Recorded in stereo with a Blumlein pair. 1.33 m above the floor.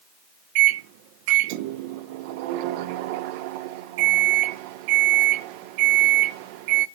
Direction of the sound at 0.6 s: 45° right.